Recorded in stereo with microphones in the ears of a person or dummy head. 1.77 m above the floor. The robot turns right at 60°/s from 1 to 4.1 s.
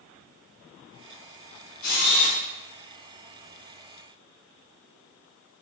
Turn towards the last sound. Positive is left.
turn(degrees=-145)